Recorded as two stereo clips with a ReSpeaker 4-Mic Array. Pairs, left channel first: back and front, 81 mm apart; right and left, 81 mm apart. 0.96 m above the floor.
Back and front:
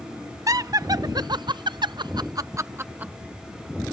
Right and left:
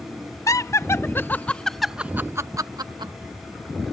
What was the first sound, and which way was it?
Laughter, 45° right.